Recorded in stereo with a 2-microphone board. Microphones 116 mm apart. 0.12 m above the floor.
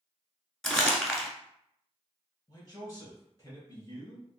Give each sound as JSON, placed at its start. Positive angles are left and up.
{"t": 0.6, "sound": "crumpling", "side_deg": 0, "distance_m": 0.8}
{"t": 2.5, "sound": "a man speaking", "side_deg": 35, "distance_m": 1.7}